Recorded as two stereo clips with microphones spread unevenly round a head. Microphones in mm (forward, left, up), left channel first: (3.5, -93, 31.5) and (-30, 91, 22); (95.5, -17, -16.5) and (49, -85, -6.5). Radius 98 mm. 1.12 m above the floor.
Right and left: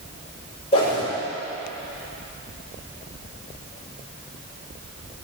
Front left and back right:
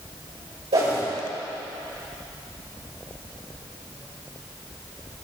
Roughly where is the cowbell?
No cowbell in this recording.